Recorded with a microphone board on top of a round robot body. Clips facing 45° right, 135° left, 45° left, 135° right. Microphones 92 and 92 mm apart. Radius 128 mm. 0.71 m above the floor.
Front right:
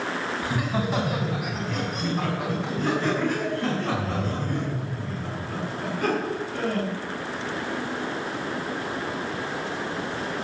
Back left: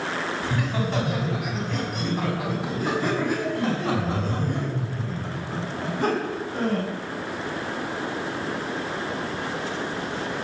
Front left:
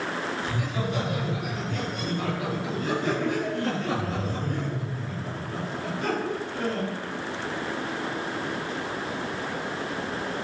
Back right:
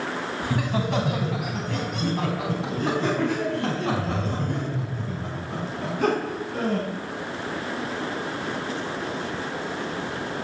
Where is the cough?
No cough in this recording.